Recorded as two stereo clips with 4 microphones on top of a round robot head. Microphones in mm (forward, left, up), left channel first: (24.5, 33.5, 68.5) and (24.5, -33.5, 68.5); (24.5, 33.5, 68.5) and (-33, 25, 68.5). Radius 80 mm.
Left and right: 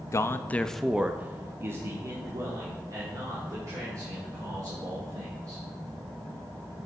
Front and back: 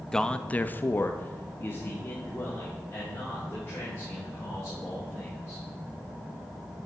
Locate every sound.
0.1 s a man speaking: 85° left, 0.6 m; by 5.6 s 55° right, 3.5 m